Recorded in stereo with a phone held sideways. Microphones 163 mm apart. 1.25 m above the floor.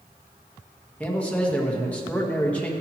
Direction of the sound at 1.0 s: 10° left (ahead or behind).